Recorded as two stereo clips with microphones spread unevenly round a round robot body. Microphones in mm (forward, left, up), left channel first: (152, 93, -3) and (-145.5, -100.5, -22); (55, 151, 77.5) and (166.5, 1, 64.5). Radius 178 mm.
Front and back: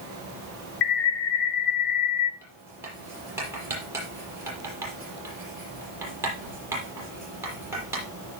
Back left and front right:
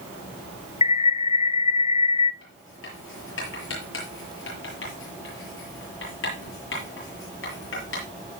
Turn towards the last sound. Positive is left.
turn(degrees=130)